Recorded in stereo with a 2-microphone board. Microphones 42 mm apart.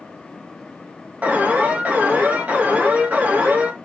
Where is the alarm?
40° right (ahead or behind), 2.0 m.